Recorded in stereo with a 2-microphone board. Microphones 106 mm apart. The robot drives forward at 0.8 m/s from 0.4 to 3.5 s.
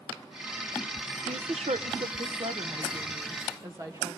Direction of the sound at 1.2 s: 65° right (ahead or behind).